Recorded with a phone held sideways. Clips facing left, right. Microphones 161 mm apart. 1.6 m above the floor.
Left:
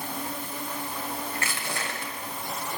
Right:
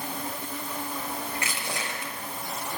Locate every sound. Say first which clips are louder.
1.4 s crushing: even; 15° right (ahead or behind), 6.5 m